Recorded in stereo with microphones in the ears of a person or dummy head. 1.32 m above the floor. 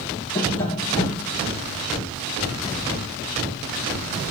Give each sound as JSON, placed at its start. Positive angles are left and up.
{"t": 0.3, "sound": "tapping", "side_deg": 15, "distance_m": 1.2}